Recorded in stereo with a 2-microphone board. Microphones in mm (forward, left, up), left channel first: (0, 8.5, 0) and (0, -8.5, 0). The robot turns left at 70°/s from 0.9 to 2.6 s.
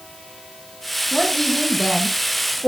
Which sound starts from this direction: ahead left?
A woman speaking, at 1.1 s.